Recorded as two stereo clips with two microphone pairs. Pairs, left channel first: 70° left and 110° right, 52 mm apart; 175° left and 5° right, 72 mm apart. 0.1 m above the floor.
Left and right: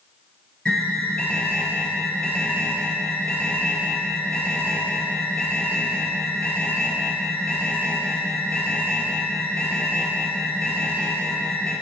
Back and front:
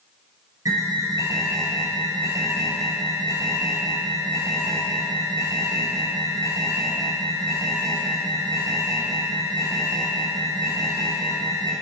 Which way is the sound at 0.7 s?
Straight ahead.